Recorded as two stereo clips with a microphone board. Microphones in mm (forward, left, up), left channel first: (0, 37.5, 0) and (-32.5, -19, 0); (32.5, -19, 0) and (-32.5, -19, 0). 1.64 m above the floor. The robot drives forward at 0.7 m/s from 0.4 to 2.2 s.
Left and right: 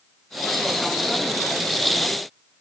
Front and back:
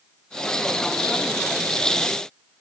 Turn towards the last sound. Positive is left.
No sound to turn to.